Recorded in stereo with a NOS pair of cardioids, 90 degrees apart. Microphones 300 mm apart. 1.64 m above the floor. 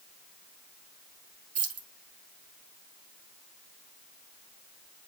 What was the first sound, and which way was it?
Keys jangling, 55° right.